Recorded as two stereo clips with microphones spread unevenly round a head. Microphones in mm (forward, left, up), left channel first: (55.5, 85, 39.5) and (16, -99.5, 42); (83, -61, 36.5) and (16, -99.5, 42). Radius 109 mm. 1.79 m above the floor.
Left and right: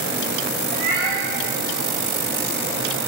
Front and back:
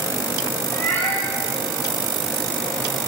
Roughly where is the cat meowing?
Ahead right.